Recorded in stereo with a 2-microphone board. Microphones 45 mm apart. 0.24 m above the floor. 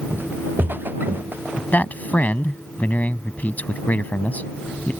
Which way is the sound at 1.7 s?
40° left (ahead or behind).